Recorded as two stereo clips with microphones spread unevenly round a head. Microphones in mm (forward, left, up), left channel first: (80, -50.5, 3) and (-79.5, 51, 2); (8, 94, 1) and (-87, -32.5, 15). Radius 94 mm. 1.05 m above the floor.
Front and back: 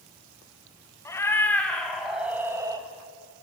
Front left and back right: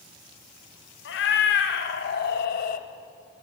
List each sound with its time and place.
1.1 s a cat meowing: 45° left, 2.5 m; by 2.9 s 80° left, 1.5 m